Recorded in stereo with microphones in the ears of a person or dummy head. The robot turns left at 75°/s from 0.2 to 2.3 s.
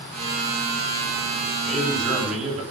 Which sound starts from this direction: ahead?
A man speaking, at 1.6 s.